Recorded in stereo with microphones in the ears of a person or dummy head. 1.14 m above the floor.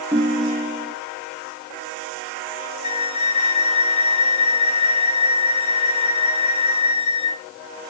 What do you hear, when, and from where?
0.1 s a ringtone: 10° right (ahead or behind), 0.7 m
2.8 s a flute: 30° left (ahead or behind), 0.9 m